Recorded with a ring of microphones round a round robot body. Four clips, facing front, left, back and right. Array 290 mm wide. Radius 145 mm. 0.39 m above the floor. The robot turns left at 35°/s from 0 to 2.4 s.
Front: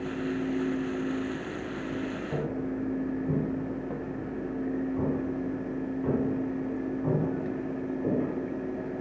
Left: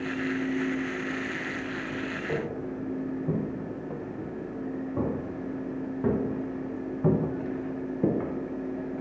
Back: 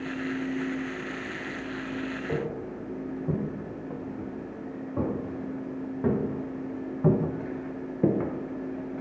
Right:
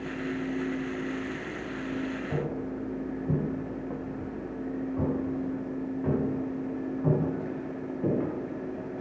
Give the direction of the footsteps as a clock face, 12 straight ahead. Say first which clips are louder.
Left 1 dB, front 1 dB; 8 o'clock.